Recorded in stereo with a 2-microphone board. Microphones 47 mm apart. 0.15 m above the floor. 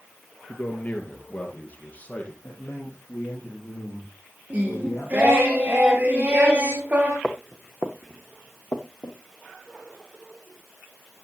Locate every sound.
0.5 s a man speaking: 35° left (ahead or behind), 2 m; by 2.3 s 30° left (ahead or behind), 3.5 m
2.4 s a man speaking: 50° left (ahead or behind), 4 m
4.5 s singing: 35° right (ahead or behind), 3.5 m
7.2 s footsteps: 10° left (ahead or behind), 1.4 m; by 9.2 s 70° left (ahead or behind), 2.0 m